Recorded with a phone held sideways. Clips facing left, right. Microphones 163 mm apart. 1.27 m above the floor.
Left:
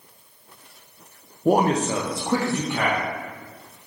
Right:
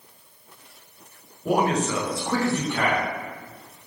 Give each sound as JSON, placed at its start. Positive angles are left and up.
{"t": 1.4, "sound": "a man speaking", "side_deg": 40, "distance_m": 0.6}